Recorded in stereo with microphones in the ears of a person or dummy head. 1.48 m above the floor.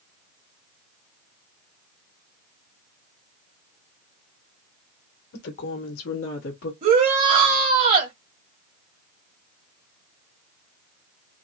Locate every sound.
5.3 s a woman speaking: 65° left (ahead or behind), 1.2 m; by 6.7 s 60° left (ahead or behind), 1.0 m
6.8 s a shout: 45° right (ahead or behind), 1.3 m